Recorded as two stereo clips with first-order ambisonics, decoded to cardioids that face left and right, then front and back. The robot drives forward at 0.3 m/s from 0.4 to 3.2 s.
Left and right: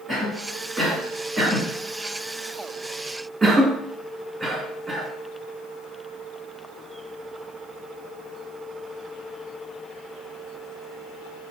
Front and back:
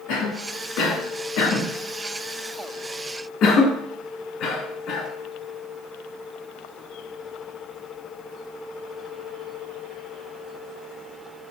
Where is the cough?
5° right, 1.5 m; by 5.1 s 20° right, 0.8 m.